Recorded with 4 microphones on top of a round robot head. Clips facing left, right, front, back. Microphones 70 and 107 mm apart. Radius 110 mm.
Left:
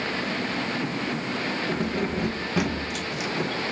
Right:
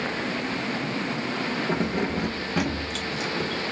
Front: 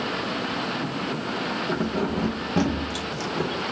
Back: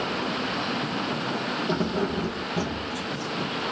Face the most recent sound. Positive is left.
turn(degrees=15)